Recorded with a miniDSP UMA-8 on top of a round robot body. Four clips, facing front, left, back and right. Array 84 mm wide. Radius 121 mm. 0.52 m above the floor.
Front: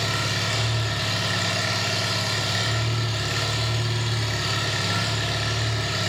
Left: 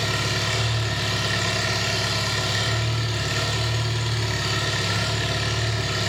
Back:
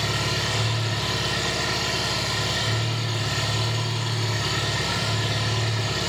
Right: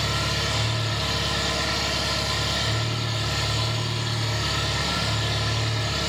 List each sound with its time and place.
0.0 s an engine running: 50° left, 2.0 m